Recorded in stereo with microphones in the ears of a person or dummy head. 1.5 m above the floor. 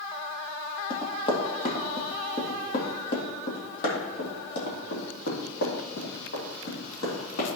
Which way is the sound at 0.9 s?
30° left (ahead or behind).